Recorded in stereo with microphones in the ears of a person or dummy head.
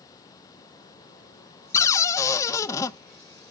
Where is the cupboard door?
15° left (ahead or behind), 0.5 m.